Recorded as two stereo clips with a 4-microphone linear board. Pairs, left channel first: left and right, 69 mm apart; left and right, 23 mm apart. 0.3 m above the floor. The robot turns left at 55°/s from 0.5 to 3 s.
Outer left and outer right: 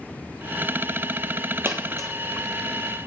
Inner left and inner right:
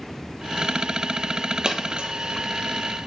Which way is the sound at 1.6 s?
40° right (ahead or behind).